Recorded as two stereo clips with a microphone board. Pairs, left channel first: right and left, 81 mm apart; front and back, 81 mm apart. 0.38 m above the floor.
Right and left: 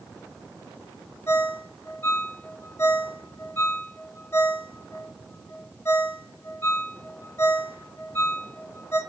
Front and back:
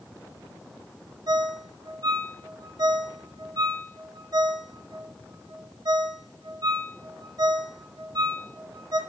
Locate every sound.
1.3 s a ringtone: 150° right, 0.8 m